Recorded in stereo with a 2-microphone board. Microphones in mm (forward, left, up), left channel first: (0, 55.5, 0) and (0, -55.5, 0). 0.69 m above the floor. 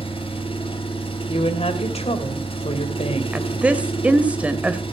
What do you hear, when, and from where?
0.0 s an engine running: 60° left (ahead or behind), 3.5 m
1.3 s a woman speaking: 70° left (ahead or behind), 3 m
3.3 s a woman speaking: 10° right (ahead or behind), 2.5 m